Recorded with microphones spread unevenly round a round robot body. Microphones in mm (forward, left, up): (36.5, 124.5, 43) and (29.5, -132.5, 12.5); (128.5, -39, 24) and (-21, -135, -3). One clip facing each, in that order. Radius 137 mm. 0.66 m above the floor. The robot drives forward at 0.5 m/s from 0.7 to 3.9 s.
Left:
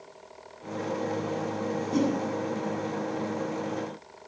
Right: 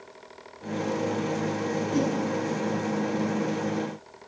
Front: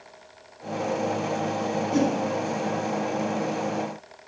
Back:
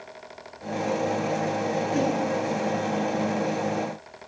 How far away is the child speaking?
I don't hear a child speaking.